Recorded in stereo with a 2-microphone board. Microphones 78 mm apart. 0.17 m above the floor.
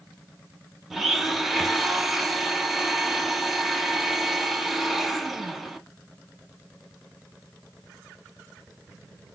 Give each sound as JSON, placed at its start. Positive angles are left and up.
{"t": 0.9, "sound": "a blender", "side_deg": -5, "distance_m": 0.7}